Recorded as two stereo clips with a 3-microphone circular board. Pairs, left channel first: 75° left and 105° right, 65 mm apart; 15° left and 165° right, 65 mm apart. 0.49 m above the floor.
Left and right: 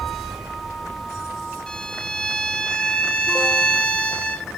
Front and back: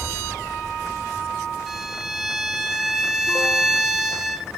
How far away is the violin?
About 0.8 m.